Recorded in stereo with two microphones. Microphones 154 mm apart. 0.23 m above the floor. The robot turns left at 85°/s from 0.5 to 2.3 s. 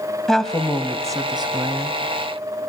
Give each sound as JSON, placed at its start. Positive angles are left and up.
{"t": 0.3, "sound": "a woman speaking", "azimuth_deg": 5, "distance_m": 1.5}